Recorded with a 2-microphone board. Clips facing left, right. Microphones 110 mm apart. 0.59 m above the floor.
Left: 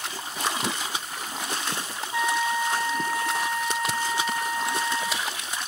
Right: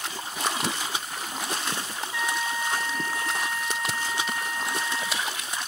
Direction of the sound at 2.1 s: 25° left (ahead or behind).